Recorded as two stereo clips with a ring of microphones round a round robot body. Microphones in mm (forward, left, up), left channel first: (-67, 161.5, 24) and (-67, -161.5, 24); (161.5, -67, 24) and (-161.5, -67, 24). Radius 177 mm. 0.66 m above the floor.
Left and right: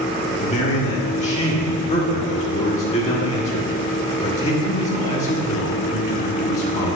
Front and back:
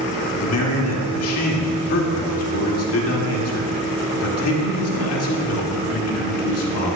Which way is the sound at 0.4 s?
25° left.